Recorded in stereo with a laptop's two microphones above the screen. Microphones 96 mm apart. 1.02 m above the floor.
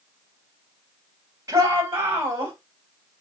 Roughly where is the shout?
Right.